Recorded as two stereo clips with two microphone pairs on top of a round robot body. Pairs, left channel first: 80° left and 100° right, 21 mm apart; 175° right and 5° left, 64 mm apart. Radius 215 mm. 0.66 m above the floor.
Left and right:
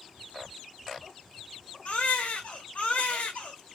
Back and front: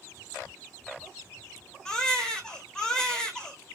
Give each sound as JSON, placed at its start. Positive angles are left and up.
{"t": 1.9, "sound": "a baby crying", "azimuth_deg": 105, "distance_m": 1.4}